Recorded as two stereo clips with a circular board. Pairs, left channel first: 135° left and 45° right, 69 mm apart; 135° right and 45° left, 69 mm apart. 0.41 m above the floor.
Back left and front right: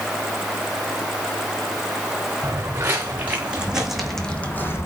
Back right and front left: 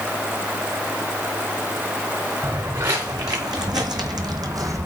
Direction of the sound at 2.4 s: 10° left.